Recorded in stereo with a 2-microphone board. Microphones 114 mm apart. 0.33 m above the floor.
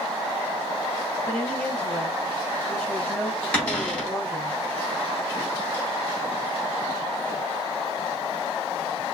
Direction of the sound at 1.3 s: 10° left (ahead or behind).